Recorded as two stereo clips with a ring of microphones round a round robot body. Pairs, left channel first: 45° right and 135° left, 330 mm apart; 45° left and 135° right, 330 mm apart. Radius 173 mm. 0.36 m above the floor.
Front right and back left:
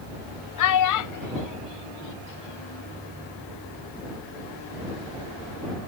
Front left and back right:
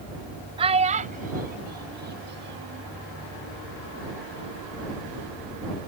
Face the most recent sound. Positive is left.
turn(degrees=-80)